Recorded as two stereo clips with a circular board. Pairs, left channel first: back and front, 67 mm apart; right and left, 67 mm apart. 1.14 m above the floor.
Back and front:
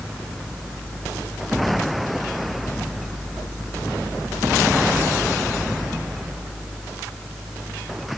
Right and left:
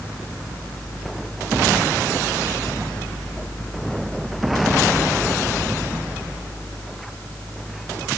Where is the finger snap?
I don't hear a finger snap.